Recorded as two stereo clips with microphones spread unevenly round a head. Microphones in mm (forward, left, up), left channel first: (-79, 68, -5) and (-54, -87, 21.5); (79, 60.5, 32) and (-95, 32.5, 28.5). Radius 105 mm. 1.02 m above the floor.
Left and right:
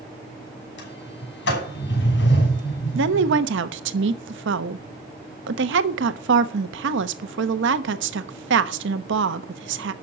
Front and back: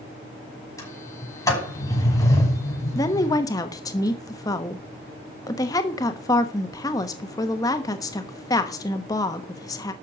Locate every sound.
0.8 s a sliding door: 80° left, 6 m
3.0 s a woman speaking: 65° right, 1.1 m